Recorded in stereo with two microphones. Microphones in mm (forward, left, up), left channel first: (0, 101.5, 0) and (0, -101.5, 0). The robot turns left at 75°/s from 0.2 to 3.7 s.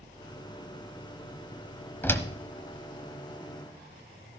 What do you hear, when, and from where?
2.0 s a door slam: 10° left (ahead or behind), 1.1 m; by 2.3 s 15° left (ahead or behind), 1.1 m